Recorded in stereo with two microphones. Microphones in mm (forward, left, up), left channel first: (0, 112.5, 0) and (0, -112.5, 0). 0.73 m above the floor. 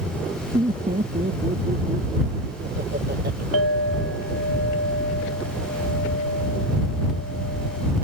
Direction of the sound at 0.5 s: 30° right (ahead or behind).